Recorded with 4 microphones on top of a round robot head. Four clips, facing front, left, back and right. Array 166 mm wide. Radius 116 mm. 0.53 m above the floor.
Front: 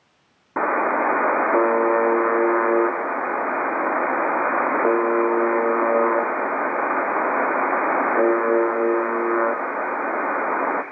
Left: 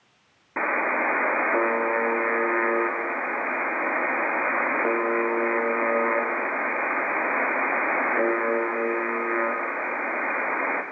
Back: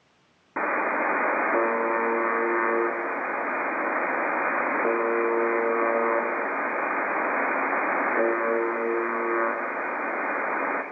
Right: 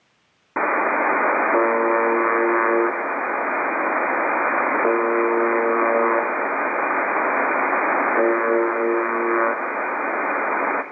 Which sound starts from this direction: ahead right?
A buzzer, at 0.6 s.